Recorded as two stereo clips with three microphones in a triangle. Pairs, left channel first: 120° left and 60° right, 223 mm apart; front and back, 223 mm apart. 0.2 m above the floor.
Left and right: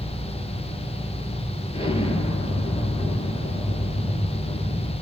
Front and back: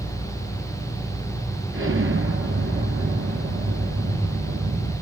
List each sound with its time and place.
1.7 s an explosion: straight behind, 2.5 m